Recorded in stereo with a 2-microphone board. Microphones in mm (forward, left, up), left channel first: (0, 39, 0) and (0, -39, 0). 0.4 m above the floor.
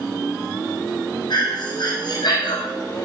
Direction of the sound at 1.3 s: 65° left (ahead or behind).